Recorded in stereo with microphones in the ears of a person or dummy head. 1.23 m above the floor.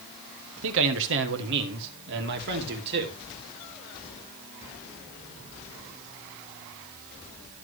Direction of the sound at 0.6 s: 70° right (ahead or behind).